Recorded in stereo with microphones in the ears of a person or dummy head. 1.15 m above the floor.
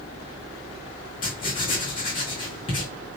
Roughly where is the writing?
Left.